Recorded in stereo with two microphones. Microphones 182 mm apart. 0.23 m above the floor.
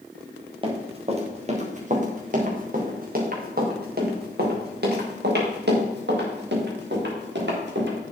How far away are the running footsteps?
About 3.5 m.